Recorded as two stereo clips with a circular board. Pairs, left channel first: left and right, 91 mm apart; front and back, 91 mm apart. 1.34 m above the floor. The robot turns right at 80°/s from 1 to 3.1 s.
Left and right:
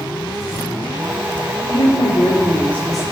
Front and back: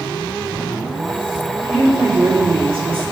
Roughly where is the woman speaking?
Left.